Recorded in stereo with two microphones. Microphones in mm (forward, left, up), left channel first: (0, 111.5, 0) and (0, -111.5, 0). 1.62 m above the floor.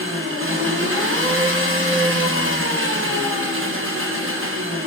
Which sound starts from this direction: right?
An engine running, at 0.0 s.